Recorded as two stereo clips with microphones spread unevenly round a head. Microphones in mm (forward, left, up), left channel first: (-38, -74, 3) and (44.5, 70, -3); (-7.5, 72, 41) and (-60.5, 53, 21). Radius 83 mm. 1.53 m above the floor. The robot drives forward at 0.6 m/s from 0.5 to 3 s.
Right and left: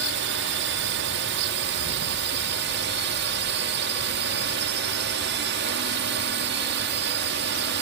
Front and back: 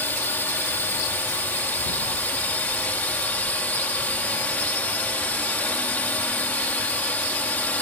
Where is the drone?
75° left; by 7.8 s 80° left.